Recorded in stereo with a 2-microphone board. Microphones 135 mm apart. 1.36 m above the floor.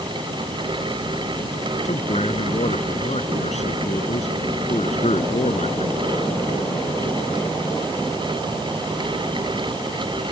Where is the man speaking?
55° left (ahead or behind).